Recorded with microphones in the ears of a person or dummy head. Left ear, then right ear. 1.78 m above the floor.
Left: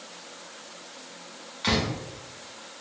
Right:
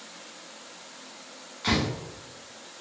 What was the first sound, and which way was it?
A door slam, 15° left (ahead or behind).